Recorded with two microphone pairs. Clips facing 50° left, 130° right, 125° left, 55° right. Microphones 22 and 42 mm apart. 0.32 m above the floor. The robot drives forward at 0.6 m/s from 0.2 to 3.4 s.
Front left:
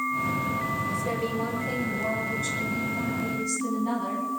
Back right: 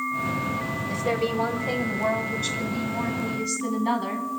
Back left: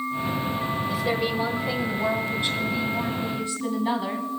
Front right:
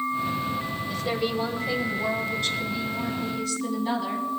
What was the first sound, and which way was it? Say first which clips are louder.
A woman speaking: back right 3 dB, even; 155° right.